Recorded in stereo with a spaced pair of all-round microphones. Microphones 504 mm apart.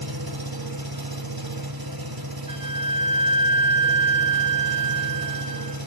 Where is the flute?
15° left (ahead or behind), 1.1 m.